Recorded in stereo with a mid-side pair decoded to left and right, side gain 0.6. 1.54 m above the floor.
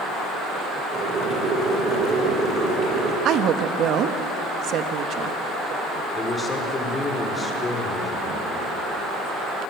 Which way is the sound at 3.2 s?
55° right.